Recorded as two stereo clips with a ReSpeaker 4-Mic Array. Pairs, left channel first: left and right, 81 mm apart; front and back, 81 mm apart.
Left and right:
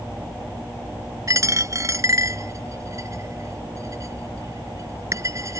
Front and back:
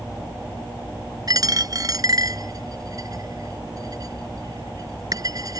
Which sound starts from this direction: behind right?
A dropped coin, at 1.3 s.